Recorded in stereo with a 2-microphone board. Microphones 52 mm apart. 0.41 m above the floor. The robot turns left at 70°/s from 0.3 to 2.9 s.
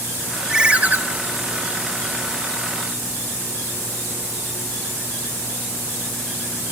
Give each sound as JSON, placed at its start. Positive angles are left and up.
{"t": 0.5, "sound": "a ringtone", "azimuth_deg": -15, "distance_m": 1.2}